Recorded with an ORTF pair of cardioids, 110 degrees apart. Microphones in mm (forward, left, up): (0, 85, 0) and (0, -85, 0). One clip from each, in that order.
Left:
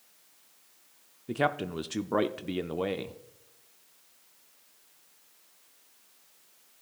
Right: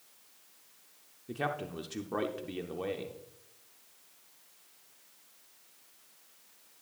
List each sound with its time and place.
1.3 s a man speaking: 30° left, 0.5 m